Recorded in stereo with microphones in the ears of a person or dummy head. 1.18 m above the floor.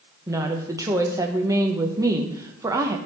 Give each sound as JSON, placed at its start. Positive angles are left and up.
{"t": 0.3, "sound": "a woman speaking", "side_deg": -15, "distance_m": 1.1}